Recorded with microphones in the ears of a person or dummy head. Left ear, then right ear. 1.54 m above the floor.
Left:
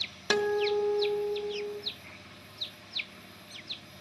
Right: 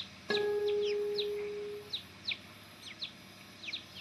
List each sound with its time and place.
0.3 s a guitar: 35° left (ahead or behind), 1.6 m